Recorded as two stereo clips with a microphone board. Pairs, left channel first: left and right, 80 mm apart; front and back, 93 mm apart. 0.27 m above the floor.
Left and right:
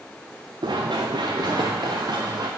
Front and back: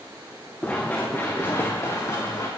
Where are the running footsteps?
75° right, 1.3 m; by 2.5 s 55° right, 2 m.